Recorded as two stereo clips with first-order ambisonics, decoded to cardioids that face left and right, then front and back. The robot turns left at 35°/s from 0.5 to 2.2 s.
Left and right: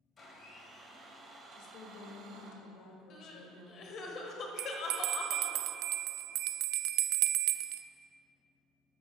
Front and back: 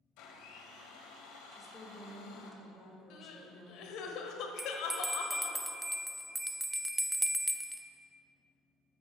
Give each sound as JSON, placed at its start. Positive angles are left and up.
{"t": 0.2, "sound": "a blender", "azimuth_deg": 20, "distance_m": 1.8}
{"t": 1.5, "sound": "a woman speaking", "azimuth_deg": 100, "distance_m": 1.5}
{"t": 3.1, "sound": "crying", "azimuth_deg": 40, "distance_m": 1.2}
{"t": 4.6, "sound": "a bell", "azimuth_deg": -95, "distance_m": 0.5}